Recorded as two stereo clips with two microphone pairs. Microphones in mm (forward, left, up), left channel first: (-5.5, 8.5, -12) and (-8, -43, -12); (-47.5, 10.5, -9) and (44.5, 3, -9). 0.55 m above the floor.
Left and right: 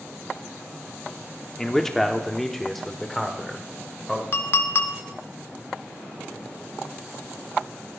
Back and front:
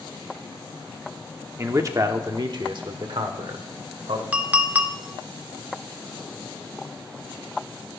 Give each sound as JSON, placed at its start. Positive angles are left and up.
{"t": 1.6, "sound": "a man speaking", "azimuth_deg": 10, "distance_m": 1.0}
{"t": 4.3, "sound": "a clink", "azimuth_deg": 65, "distance_m": 0.9}